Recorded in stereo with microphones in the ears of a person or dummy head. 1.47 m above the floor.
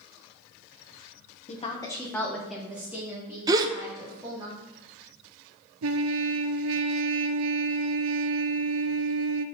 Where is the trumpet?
75° right (ahead or behind), 0.5 m.